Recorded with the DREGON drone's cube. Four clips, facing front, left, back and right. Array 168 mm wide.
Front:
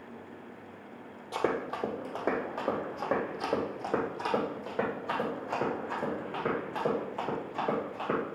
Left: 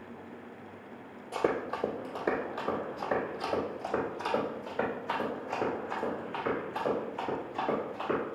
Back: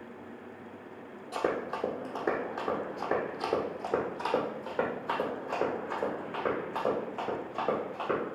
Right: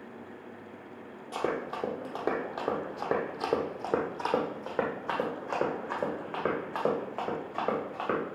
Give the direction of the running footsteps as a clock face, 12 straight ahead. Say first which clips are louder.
Left 2 dB, even; 1 o'clock.